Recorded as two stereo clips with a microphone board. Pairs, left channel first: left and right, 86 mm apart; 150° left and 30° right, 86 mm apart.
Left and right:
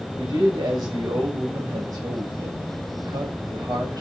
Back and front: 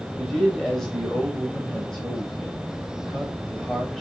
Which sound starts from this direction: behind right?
A man speaking, at 0.2 s.